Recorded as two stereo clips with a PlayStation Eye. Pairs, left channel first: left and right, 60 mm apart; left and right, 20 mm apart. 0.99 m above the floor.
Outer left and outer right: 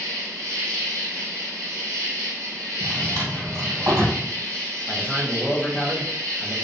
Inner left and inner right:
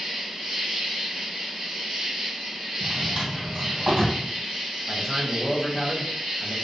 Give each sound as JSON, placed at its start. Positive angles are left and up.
{"t": 0.0, "sound": "an insect", "side_deg": -65, "distance_m": 1.7}
{"t": 2.8, "sound": "a drawer", "side_deg": -70, "distance_m": 1.6}
{"t": 4.9, "sound": "a man speaking", "side_deg": -20, "distance_m": 0.6}